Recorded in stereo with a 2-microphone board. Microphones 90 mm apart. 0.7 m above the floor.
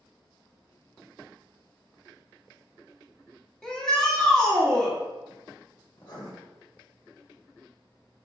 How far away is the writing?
About 0.8 m.